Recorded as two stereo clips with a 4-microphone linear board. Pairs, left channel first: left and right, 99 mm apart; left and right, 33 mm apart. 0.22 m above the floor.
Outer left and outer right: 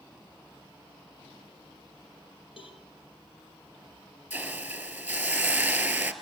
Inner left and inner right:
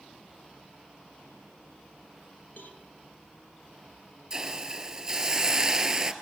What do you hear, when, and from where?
2.6 s a cowbell: 60° left (ahead or behind), 5 m
4.3 s a hiss: 15° right (ahead or behind), 2 m